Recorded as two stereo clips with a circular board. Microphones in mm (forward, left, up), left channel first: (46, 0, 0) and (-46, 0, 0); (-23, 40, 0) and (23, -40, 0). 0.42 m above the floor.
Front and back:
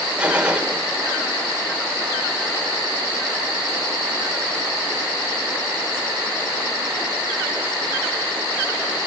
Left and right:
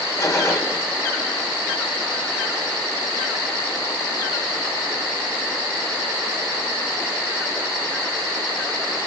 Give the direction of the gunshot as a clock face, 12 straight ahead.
8 o'clock.